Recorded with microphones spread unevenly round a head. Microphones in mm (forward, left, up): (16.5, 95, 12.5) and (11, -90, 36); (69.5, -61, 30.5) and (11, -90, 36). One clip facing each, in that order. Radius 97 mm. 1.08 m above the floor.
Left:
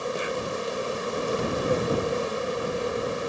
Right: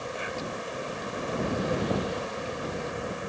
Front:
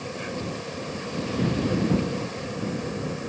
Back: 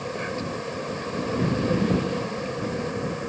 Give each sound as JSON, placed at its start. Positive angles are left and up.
{"t": 0.0, "sound": "an insect", "azimuth_deg": 130}